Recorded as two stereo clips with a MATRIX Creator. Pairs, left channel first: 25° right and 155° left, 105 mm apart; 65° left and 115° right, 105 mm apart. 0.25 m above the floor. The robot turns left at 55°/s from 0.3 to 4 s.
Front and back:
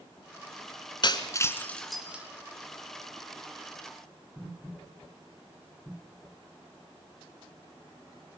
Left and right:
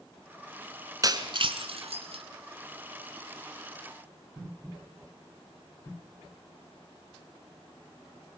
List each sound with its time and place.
1.0 s breaking glass: 60° right, 2 m; by 2.2 s 130° right, 2 m